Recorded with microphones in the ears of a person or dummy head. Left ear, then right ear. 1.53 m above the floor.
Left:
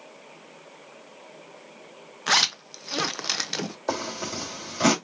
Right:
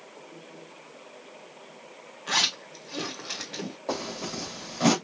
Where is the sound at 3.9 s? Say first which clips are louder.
Left 2 dB; 65° left (ahead or behind), 2.5 m.